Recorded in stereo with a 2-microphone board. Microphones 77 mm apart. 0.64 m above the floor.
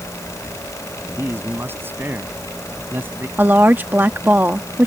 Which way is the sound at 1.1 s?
30° right (ahead or behind).